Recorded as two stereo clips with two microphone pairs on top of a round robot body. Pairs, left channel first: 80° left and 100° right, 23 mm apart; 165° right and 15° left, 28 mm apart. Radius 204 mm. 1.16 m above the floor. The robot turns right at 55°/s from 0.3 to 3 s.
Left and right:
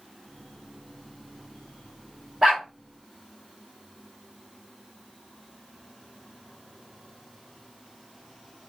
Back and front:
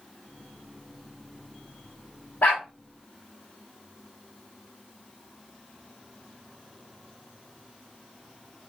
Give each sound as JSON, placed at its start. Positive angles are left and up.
{"t": 2.4, "sound": "a dog barking", "azimuth_deg": -165, "distance_m": 0.7}